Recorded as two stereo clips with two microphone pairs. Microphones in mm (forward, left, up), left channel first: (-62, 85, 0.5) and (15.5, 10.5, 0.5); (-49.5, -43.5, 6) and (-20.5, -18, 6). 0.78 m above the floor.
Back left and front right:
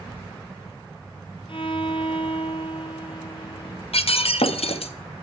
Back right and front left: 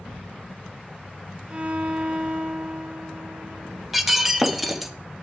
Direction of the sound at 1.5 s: 100° left.